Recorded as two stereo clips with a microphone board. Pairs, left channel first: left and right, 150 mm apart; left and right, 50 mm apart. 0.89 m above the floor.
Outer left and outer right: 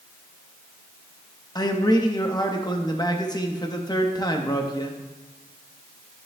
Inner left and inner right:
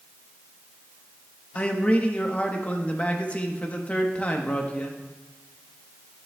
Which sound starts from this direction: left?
A man speaking, at 1.6 s.